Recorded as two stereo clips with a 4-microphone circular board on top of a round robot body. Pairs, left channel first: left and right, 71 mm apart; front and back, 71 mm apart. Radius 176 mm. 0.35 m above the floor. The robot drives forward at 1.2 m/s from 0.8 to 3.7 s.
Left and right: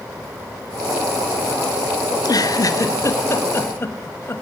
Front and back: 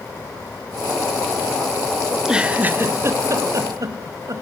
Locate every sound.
2.1 s a giggle: 90° left, 1.6 m; by 4.4 s 145° left, 2.5 m